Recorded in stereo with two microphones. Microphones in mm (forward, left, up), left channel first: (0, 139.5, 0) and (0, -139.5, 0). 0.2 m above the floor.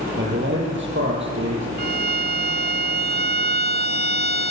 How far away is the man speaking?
About 7.5 m.